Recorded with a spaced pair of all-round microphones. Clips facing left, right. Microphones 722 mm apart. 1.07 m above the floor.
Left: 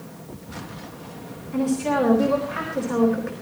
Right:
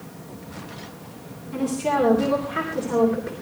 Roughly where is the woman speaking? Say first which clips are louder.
Left 2 dB; right.